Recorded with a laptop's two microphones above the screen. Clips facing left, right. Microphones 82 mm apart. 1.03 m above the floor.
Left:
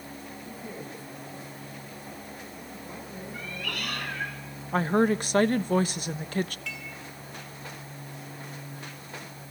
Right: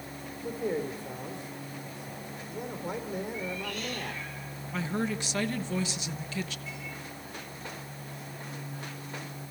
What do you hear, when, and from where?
0.4 s a man speaking: 80° right, 4.5 m
3.3 s a cat meowing: 70° left (ahead or behind), 2.5 m
4.7 s a woman speaking: 50° left (ahead or behind), 1.1 m
6.7 s dishes clattering: 90° left, 6.5 m